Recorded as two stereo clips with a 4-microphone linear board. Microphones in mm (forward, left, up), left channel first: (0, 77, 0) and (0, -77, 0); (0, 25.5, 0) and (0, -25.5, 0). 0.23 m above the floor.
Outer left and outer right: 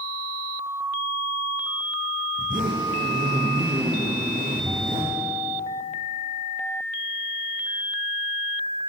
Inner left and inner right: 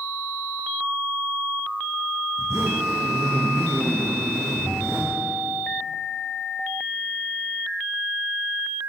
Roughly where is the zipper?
Right.